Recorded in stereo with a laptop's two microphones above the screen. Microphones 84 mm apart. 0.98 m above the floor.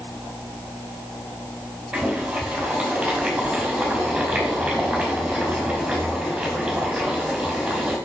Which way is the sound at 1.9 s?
10° right (ahead or behind).